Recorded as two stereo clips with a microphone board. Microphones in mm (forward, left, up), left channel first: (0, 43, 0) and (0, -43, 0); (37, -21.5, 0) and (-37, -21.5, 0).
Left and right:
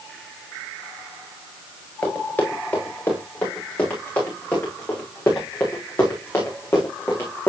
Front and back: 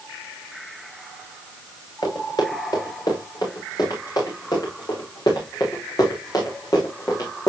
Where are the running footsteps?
25° left, 6.5 m; by 7.5 s 30° left, 3.5 m.